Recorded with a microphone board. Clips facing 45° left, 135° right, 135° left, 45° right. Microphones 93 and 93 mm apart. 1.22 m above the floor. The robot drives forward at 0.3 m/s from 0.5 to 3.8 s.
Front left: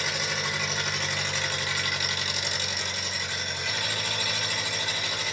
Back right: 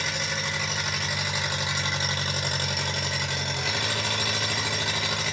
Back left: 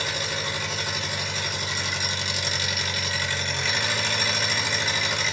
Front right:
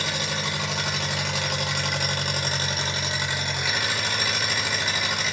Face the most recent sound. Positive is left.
turn(degrees=-130)